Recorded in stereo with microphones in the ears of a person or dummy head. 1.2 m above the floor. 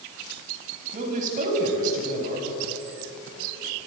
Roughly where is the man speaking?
Right.